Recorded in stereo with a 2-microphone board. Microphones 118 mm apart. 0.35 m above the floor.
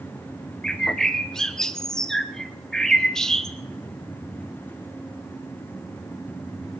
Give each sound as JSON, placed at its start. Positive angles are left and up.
{"t": 0.6, "sound": "a bird", "side_deg": 5, "distance_m": 0.8}